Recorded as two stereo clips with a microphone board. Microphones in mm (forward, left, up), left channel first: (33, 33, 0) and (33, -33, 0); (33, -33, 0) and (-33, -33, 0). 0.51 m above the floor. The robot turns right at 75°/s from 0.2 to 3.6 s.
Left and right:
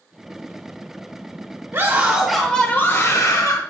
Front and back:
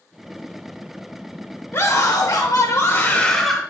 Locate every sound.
1.7 s a scream: 45° right, 1.7 m; by 3.6 s 95° left, 1.7 m